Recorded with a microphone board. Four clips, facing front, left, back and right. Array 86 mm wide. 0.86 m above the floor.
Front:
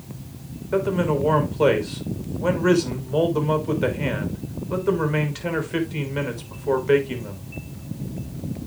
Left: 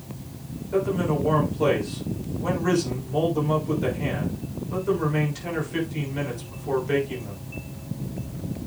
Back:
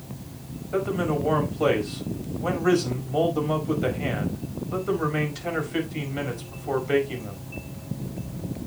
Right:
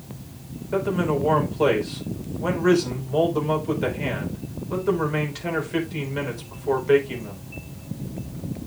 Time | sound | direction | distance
0.7 | a man speaking | 25° right | 3.5 m